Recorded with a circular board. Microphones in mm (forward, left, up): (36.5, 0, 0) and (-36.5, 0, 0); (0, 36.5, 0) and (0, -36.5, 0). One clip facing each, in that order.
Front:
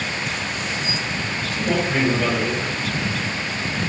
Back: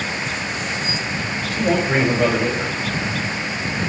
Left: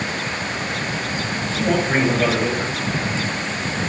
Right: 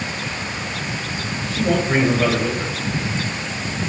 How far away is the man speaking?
About 2 m.